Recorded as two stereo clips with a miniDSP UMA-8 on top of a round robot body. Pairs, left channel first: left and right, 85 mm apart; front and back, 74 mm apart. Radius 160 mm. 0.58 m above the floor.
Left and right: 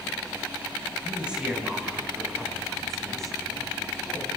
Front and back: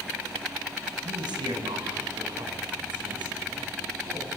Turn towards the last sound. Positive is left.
turn(degrees=170)